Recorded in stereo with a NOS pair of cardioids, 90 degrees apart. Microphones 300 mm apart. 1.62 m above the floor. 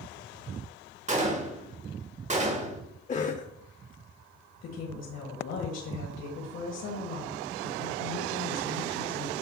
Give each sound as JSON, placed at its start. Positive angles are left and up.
{"t": 1.1, "sound": "a gunshot", "azimuth_deg": -25, "distance_m": 1.7}
{"t": 3.1, "sound": "a cough", "azimuth_deg": 25, "distance_m": 0.9}
{"t": 4.6, "sound": "a woman speaking", "azimuth_deg": 55, "distance_m": 2.0}